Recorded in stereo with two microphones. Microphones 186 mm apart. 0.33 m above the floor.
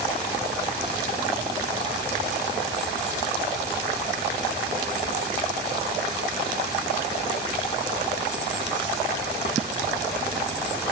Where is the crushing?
I don't hear crushing.